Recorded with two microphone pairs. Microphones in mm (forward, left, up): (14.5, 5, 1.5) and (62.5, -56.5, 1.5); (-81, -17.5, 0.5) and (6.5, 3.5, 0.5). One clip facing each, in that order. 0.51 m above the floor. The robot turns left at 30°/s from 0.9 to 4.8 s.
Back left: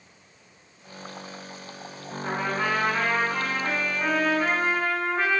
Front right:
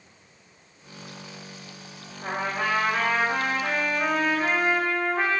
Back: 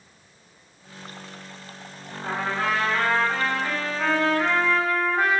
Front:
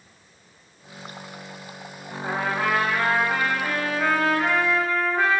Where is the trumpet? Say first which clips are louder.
Back left 1 dB, front 1 dB; 10° right, 1.0 m; by 5.4 s 90° right, 1.0 m.